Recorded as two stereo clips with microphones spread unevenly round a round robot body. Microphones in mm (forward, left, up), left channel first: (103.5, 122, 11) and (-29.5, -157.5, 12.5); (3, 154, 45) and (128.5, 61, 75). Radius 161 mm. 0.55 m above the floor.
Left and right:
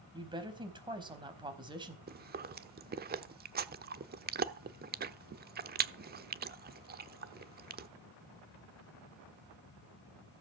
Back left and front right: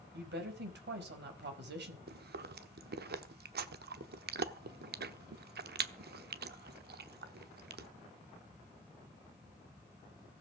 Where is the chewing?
60° right, 1.0 m.